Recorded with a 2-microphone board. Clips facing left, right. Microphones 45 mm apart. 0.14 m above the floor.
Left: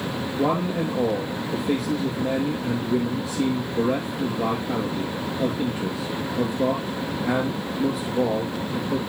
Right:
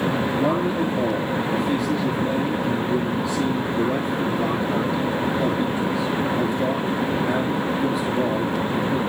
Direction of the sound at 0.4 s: 60° left (ahead or behind).